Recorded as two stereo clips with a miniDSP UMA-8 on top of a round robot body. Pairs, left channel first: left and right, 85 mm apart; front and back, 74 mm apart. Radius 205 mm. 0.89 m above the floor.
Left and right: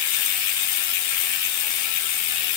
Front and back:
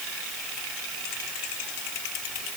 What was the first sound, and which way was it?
Only background noise.